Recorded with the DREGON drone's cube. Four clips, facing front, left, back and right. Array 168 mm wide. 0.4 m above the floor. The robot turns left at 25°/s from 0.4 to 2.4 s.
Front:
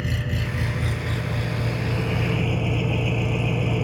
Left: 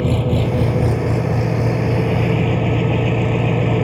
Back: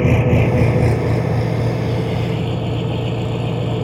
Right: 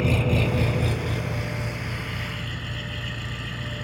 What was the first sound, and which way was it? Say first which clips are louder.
An engine running: left 5 dB, back 14 dB; 160° left.